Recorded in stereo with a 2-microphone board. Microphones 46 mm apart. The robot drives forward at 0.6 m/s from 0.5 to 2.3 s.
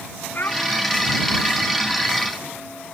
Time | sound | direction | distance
0.3 | a child speaking | 50° left (ahead or behind) | ?